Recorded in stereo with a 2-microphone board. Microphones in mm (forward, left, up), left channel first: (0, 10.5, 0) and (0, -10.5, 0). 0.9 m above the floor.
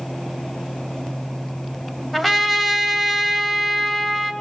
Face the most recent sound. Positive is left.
turn(degrees=10)  # may be behind; listen again after turning